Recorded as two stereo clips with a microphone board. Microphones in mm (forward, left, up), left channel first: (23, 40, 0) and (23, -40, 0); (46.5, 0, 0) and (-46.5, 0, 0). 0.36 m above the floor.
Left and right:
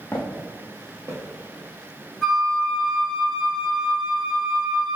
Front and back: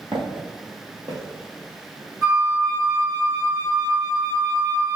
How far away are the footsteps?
About 0.8 m.